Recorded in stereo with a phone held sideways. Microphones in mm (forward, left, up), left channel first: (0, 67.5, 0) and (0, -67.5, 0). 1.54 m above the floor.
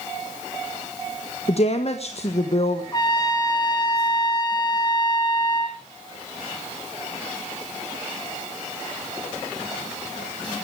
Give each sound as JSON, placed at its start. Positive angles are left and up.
{"t": 1.5, "sound": "a woman speaking", "side_deg": 50, "distance_m": 1.5}
{"t": 2.9, "sound": "a trumpet", "side_deg": 30, "distance_m": 3.0}